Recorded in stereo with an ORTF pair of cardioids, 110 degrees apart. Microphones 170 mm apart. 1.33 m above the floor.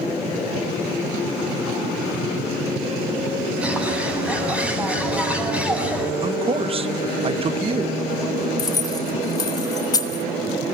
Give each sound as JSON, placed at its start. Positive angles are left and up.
{"t": 3.6, "sound": "a bird", "azimuth_deg": -5, "distance_m": 9.0}
{"t": 6.2, "sound": "a man speaking", "azimuth_deg": -35, "distance_m": 1.1}
{"t": 8.6, "sound": "keys jangling", "azimuth_deg": 25, "distance_m": 2.5}